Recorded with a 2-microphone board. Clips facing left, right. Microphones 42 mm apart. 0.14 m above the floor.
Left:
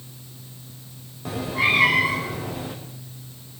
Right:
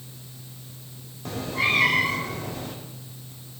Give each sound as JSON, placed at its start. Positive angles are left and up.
{"t": 1.2, "sound": "a cat meowing", "side_deg": 5, "distance_m": 3.5}